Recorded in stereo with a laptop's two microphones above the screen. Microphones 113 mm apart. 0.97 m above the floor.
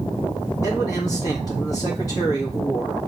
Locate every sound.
0.6 s a man speaking: 30° left (ahead or behind), 1.8 m